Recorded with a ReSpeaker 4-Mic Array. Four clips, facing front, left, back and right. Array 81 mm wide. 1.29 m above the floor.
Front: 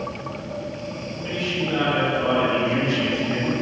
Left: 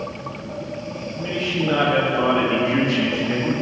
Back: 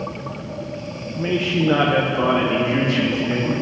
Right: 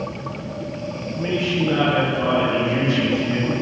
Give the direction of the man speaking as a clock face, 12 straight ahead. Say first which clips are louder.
Right 3 dB, back 7 dB; 5 o'clock.